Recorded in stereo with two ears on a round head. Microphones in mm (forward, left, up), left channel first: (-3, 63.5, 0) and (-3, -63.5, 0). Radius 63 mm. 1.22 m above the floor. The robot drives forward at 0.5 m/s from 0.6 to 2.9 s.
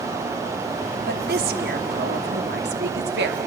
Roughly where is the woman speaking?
Right.